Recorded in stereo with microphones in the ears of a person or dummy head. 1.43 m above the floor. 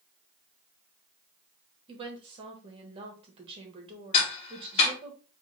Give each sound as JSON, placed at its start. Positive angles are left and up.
{"t": 1.9, "sound": "a woman speaking", "side_deg": -30, "distance_m": 1.4}
{"t": 4.1, "sound": "ticking", "side_deg": 30, "distance_m": 1.2}